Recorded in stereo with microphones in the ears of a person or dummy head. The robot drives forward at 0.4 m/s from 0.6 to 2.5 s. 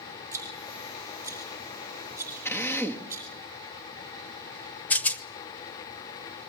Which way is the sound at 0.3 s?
15° right (ahead or behind).